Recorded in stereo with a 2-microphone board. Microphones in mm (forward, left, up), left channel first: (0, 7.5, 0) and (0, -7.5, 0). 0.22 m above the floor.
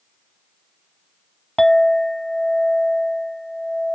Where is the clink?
25° left (ahead or behind), 0.6 m.